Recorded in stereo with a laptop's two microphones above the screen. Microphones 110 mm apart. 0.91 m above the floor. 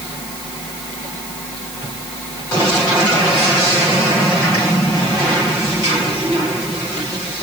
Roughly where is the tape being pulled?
I don't hear tape being pulled.